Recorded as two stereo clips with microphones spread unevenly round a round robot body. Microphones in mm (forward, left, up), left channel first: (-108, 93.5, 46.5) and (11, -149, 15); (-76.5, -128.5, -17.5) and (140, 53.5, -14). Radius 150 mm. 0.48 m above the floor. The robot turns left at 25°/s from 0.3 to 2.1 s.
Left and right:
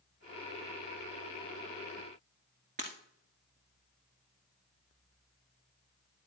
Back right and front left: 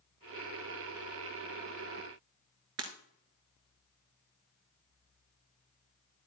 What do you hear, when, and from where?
2.8 s breaking glass: 5° left, 1.6 m